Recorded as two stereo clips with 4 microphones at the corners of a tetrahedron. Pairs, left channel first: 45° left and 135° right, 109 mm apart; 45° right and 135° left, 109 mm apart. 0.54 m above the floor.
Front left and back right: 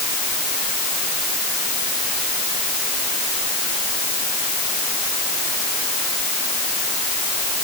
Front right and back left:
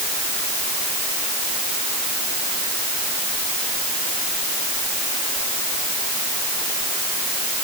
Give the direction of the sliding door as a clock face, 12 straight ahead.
I don't hear a sliding door.